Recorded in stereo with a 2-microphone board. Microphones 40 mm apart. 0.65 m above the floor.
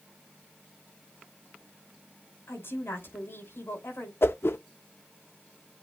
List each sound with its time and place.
2.5 s a woman speaking: 65° left (ahead or behind), 5.5 m
4.2 s a whoosh: 70° left (ahead or behind), 0.5 m